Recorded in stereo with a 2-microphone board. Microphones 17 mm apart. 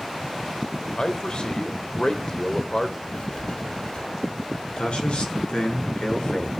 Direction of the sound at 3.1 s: 75° left (ahead or behind).